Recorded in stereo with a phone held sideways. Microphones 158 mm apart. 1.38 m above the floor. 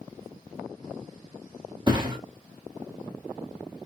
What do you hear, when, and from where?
1.9 s a thud: 30° right (ahead or behind), 1.2 m